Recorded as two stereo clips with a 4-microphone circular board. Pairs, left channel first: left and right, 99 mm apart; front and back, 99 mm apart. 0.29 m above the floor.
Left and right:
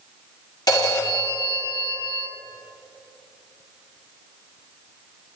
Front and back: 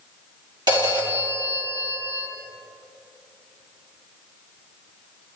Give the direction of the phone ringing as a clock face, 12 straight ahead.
7 o'clock.